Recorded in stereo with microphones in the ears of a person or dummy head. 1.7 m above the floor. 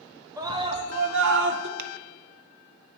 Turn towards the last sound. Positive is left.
turn(degrees=-55)  # may be behind; listen again after turning